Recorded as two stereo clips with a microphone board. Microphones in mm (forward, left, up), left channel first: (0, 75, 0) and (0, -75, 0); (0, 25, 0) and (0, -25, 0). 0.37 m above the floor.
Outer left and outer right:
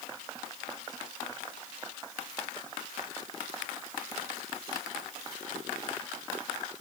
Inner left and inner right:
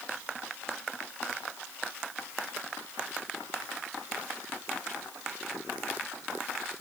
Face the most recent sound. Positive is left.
No sound to turn to.